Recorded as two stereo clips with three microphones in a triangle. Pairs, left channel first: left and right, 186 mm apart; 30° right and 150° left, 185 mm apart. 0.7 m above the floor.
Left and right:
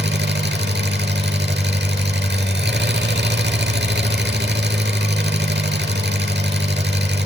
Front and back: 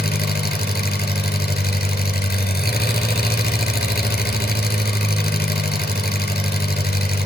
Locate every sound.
0.0 s an engine running: 65° right, 4 m